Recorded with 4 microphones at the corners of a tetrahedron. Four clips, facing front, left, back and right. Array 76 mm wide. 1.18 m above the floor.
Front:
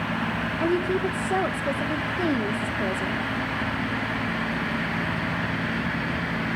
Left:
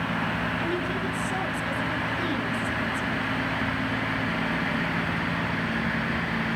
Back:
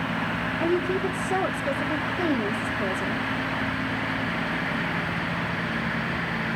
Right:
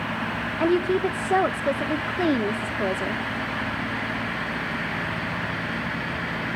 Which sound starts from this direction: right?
A woman speaking, at 0.6 s.